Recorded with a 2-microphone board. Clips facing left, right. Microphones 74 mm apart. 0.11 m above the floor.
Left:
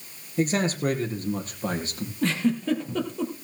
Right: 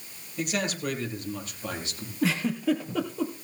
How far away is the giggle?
About 2.5 m.